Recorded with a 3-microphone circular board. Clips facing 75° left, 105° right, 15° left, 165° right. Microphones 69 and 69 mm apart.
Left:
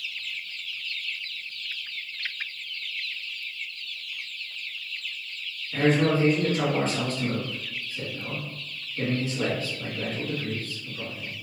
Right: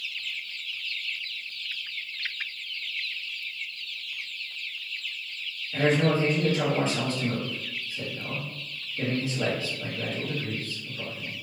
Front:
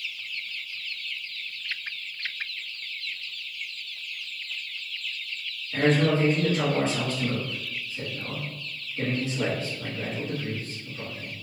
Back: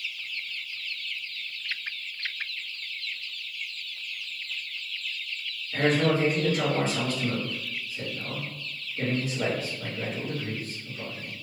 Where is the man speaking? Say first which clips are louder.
Left 1 dB, front 1 dB; 100° left, 1.6 m.